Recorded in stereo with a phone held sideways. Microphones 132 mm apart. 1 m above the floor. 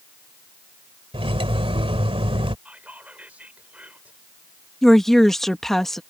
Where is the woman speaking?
5° left (ahead or behind).